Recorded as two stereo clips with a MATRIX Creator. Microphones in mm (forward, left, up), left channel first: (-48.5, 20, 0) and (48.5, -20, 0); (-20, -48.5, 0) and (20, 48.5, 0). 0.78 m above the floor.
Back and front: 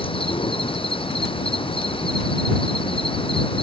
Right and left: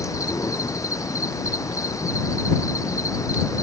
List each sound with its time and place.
0.0 s an insect: 170° right